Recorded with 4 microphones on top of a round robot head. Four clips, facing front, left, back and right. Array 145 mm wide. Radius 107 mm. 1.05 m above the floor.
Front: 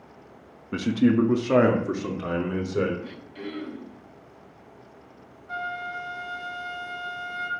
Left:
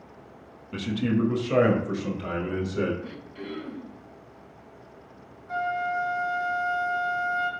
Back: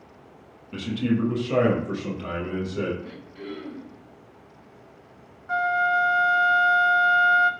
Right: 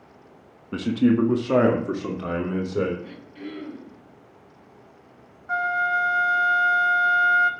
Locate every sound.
0.7 s a man speaking: 50° right, 1.3 m
3.0 s throat clearing: straight ahead, 5 m
5.5 s a flute: 120° right, 1.2 m